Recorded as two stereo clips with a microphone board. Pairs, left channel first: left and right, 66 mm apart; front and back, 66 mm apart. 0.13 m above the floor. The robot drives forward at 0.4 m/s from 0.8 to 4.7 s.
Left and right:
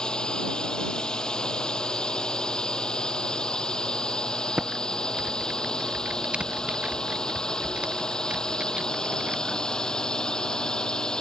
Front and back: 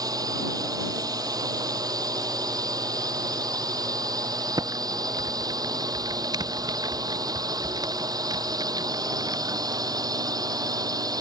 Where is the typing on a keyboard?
165° right.